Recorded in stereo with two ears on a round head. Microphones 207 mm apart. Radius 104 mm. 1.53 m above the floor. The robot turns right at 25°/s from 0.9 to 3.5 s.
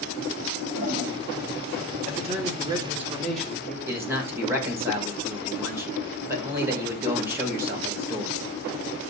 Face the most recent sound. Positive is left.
turn(degrees=-10)  # may be behind; listen again after turning